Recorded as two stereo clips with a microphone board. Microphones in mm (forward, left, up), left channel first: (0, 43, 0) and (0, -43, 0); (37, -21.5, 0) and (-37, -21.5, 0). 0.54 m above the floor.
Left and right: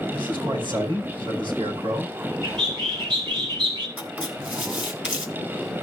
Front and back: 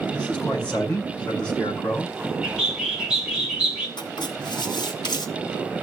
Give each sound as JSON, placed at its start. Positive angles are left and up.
{"t": 0.1, "sound": "a man speaking", "azimuth_deg": -75, "distance_m": 5.0}
{"t": 2.4, "sound": "a bird", "azimuth_deg": -100, "distance_m": 3.0}
{"t": 4.0, "sound": "writing", "azimuth_deg": -15, "distance_m": 2.5}